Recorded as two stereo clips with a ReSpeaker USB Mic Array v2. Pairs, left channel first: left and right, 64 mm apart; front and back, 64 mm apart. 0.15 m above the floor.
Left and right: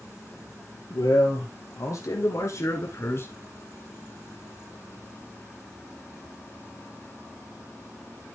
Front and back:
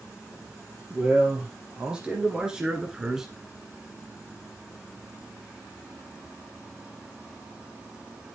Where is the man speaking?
105° left, 3.5 m; by 3.3 s 100° left, 1.6 m.